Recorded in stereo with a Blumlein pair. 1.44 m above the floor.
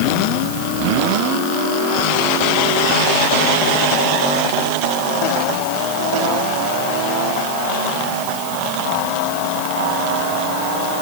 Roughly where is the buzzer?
I don't hear a buzzer.